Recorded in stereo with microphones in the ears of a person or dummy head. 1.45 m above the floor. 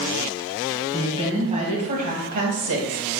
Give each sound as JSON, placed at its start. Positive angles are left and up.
{"t": 0.9, "sound": "a woman speaking", "side_deg": -25, "distance_m": 2.0}